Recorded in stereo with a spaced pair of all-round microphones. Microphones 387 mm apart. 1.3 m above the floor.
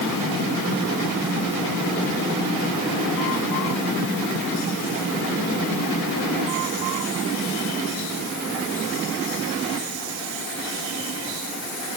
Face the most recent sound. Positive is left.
No sound to turn to.